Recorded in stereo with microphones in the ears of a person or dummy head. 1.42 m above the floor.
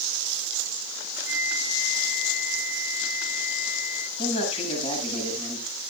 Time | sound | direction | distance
1.3 | a flute | 50° left (ahead or behind) | 4.5 m
4.2 | a man speaking | 45° left (ahead or behind) | 8.5 m